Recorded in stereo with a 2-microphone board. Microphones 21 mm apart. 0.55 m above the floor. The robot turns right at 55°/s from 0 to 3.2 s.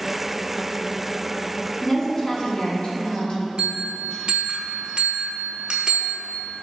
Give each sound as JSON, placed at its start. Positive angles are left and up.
{"t": 1.8, "sound": "a woman speaking", "azimuth_deg": 10, "distance_m": 0.8}
{"t": 3.6, "sound": "a bell", "side_deg": -60, "distance_m": 0.7}